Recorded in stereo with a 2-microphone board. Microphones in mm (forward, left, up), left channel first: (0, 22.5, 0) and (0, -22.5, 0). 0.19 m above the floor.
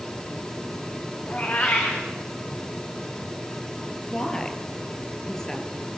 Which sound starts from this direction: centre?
A woman speaking, at 4.1 s.